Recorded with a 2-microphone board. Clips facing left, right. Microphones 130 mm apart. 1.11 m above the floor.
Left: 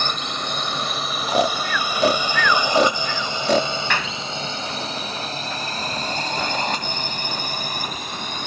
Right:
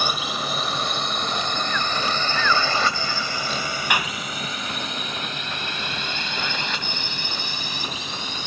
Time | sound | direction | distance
0.0 | a drone | 5° right (ahead or behind) | ?
1.3 | snoring | 85° left | ?
3.9 | a clap | 15° right (ahead or behind) | ?